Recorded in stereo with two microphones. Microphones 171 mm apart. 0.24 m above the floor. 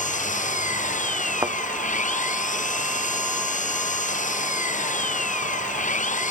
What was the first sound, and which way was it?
An engine running, 50° left (ahead or behind).